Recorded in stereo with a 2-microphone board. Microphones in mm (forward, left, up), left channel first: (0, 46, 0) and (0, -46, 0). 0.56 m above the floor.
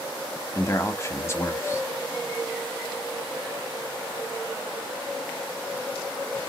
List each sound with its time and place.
0.6 s a man speaking: 30° left (ahead or behind), 0.8 m